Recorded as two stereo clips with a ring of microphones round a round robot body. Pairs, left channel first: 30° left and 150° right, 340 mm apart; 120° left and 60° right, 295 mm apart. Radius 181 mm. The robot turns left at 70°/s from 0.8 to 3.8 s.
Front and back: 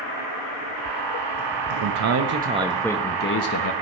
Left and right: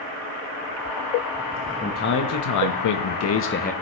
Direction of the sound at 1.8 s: 170° right.